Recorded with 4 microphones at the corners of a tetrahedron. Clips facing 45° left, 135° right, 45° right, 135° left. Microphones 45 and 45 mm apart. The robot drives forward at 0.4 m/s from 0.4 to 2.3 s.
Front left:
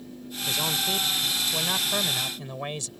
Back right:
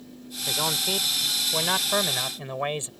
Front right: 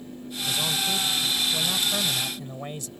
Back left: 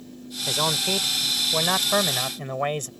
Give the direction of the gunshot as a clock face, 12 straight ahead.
I don't hear a gunshot.